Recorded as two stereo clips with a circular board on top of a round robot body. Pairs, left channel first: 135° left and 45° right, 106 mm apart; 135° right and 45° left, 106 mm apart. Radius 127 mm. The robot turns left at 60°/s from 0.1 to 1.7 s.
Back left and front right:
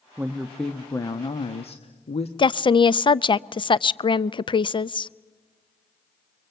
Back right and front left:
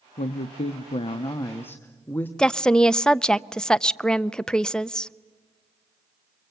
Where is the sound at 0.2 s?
115° right, 1.1 m; by 2.3 s 155° left, 1.1 m.